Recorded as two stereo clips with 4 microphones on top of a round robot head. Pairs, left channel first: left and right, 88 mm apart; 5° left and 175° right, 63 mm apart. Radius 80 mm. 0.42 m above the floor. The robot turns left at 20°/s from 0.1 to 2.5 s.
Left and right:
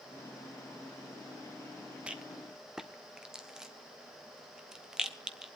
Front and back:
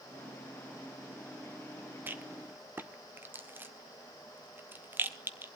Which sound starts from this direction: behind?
A rattle, at 2.1 s.